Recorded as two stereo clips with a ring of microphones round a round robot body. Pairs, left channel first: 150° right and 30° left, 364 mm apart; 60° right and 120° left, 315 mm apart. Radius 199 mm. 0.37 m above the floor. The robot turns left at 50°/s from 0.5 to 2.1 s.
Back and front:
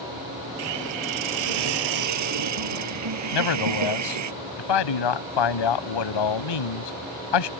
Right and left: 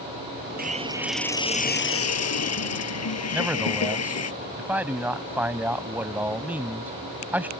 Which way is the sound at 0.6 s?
60° left.